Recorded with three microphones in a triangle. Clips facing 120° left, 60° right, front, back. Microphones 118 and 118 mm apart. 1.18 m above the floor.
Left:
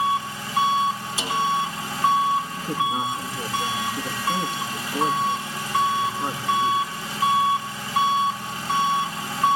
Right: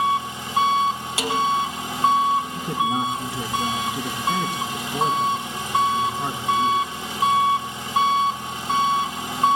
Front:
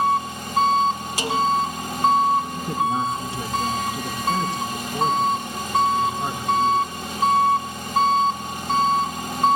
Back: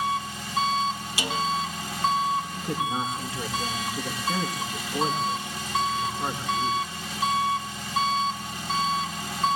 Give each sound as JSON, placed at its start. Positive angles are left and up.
{"t": 0.0, "sound": "an engine running", "azimuth_deg": 0, "distance_m": 1.0}
{"t": 1.2, "sound": "a snare drum", "azimuth_deg": -45, "distance_m": 5.0}
{"t": 2.5, "sound": "a man speaking", "azimuth_deg": -60, "distance_m": 7.0}